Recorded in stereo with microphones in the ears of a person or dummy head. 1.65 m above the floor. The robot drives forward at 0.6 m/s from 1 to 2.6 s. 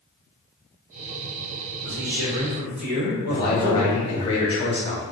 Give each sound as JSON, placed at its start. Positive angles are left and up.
{"t": 1.8, "sound": "a man speaking", "side_deg": -70, "distance_m": 1.9}
{"t": 3.3, "sound": "a man speaking", "side_deg": 30, "distance_m": 1.0}